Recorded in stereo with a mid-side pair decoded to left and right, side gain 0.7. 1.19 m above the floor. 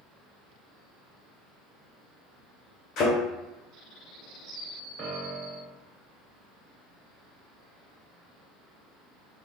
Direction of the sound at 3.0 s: 50° left.